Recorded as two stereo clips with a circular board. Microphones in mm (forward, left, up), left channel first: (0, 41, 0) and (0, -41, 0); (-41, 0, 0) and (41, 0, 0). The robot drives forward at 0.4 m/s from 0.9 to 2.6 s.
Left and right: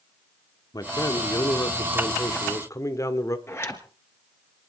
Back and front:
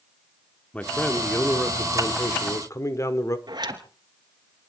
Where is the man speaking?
110° left, 1.4 m; by 3.4 s 135° left, 1.7 m.